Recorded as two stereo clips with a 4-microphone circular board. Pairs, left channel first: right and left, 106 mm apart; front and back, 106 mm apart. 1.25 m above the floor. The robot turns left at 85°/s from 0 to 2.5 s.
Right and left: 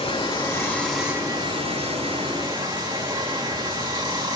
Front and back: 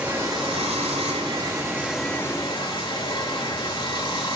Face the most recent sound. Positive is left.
turn(degrees=45)